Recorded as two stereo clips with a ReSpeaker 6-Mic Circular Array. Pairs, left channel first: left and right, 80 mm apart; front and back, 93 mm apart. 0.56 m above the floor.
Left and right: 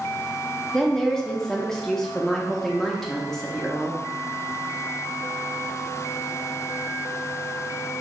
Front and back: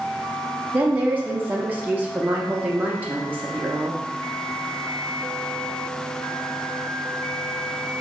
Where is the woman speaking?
165° left, 0.6 m.